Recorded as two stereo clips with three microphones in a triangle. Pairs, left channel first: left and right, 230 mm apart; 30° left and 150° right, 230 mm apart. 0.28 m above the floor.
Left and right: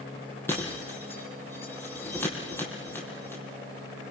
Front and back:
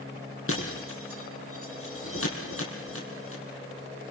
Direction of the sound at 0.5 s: 10° left.